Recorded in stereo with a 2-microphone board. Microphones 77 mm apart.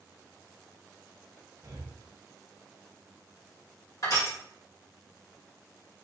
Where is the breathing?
70° right (ahead or behind), 1.3 m.